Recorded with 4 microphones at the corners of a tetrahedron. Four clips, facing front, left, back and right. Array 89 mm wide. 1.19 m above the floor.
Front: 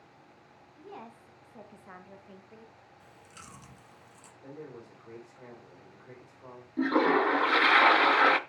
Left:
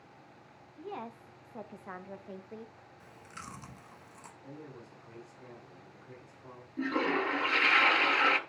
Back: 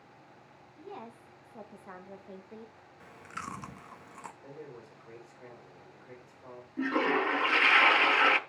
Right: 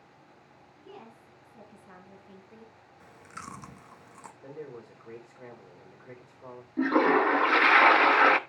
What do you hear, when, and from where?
0.8 s a woman speaking: 90° left, 2.5 m; by 2.7 s 140° left, 0.9 m
3.0 s chewing: 150° right, 0.8 m
4.4 s a man speaking: 75° right, 4 m
6.8 s a toilet flushing: 60° right, 0.7 m